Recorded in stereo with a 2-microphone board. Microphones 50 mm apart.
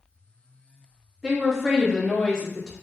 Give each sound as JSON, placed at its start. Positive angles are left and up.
{"t": 1.2, "sound": "a woman speaking", "side_deg": 0, "distance_m": 0.7}